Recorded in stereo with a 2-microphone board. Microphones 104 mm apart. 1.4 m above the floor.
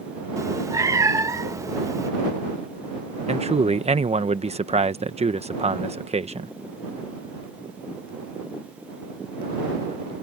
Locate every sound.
0.4 s a cat meowing: 30° right (ahead or behind)
3.3 s a man speaking: 85° right